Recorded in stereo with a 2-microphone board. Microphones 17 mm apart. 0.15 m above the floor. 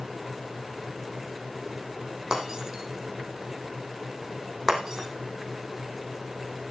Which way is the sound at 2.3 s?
40° right (ahead or behind).